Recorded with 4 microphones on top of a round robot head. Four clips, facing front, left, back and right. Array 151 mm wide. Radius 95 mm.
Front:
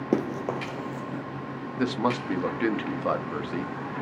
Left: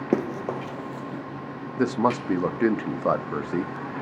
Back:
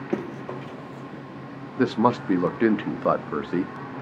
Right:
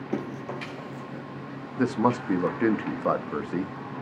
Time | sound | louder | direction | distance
0.1 | running footsteps | left 7 dB, front 3 dB | 60° left | 0.9 m
1.8 | a man speaking | left 1 dB, back 5 dB | 160° left | 0.7 m